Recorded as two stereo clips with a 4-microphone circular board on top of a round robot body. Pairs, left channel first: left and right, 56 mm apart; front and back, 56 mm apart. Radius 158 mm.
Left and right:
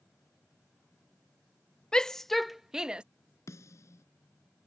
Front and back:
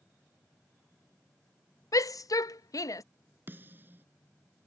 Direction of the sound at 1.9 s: 15° left.